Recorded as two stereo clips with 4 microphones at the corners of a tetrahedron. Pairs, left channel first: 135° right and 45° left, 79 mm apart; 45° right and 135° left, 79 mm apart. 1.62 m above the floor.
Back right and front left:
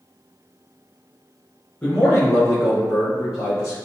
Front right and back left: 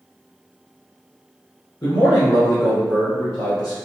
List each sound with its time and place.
1.8 s a man speaking: 65° right, 1.1 m; by 3.8 s 85° right, 3 m